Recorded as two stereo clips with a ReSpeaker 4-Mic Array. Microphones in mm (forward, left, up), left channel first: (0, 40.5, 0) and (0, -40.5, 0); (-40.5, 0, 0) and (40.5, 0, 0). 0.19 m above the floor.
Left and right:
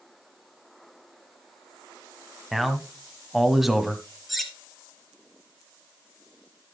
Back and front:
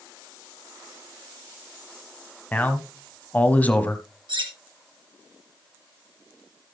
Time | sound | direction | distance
2.5 | a man speaking | 175° right | 1.0 m
4.3 | cutlery clinking | straight ahead | 2.5 m